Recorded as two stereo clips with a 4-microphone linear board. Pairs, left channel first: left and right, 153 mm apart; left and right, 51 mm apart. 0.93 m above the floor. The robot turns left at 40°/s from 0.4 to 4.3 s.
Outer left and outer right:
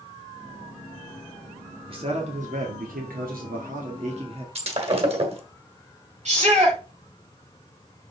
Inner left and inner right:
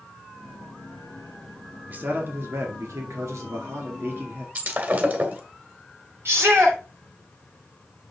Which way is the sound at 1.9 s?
40° right.